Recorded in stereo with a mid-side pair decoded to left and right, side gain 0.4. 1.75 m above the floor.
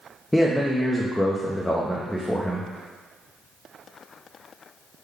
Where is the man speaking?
10° left, 0.5 m.